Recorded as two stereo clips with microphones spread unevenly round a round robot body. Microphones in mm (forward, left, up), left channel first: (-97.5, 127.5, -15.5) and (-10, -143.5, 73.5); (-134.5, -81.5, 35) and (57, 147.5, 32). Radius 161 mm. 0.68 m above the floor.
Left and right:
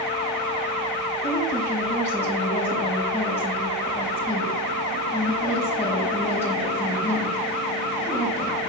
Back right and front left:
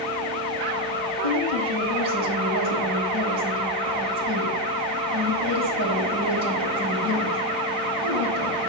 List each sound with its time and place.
1.2 s a woman speaking: 30° left, 4 m